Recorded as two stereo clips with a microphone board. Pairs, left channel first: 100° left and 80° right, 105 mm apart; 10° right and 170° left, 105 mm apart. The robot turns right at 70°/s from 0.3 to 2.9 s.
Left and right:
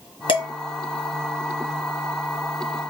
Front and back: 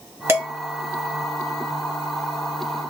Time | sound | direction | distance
0.3 | dishes clattering | 110° left | 1.5 m